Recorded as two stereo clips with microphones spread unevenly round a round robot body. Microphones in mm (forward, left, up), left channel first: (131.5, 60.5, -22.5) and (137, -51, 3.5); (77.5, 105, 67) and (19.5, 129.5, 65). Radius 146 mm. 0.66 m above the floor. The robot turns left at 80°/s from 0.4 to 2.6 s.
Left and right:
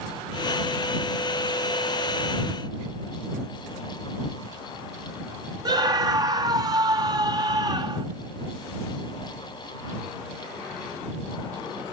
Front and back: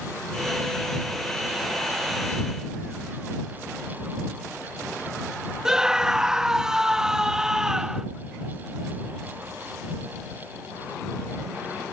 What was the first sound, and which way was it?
A scream, 135° right.